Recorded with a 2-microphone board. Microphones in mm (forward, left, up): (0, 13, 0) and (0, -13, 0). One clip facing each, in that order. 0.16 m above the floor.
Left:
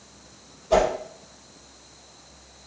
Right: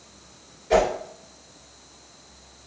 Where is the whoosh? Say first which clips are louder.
Even; 55° right (ahead or behind), 2.5 m.